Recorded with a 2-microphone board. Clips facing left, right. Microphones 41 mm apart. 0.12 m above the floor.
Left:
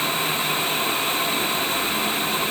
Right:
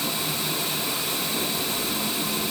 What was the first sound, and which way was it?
Only background noise.